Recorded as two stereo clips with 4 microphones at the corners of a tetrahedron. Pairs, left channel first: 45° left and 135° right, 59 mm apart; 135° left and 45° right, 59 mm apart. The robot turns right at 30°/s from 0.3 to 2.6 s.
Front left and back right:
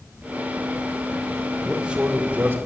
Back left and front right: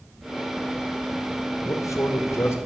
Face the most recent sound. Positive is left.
turn(degrees=175)